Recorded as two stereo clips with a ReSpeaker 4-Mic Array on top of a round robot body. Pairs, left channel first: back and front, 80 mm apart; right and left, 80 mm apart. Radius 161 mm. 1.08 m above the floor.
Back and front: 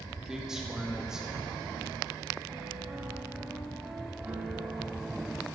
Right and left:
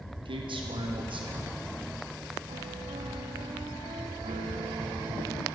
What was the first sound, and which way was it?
A man speaking, 85° left.